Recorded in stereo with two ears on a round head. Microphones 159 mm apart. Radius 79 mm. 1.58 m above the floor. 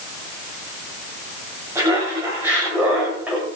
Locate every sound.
1.8 s laughter: 15° right (ahead or behind), 7.5 m; by 3.5 s 5° right (ahead or behind), 6 m